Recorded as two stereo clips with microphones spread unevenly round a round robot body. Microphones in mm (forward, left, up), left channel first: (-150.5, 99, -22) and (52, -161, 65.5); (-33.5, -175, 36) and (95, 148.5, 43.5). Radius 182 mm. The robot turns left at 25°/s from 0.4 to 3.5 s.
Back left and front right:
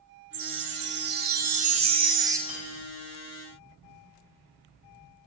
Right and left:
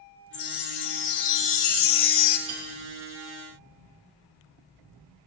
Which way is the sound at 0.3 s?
70° right.